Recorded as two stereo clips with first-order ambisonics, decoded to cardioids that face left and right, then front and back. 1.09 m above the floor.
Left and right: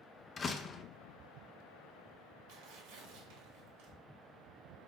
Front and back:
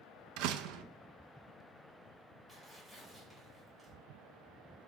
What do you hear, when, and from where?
0.4 s a door slam: 160° left, 0.5 m
2.5 s tearing paper: 100° right, 2.5 m